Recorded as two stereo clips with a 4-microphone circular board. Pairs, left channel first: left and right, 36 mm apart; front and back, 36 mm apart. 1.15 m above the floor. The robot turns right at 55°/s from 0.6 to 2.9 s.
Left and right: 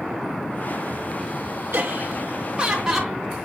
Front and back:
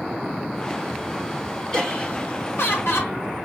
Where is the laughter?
70° right, 3 m; by 3.2 s 5° right, 3 m.